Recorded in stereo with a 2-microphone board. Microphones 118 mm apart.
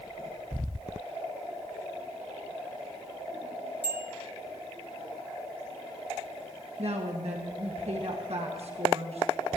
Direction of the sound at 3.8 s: 55° left (ahead or behind).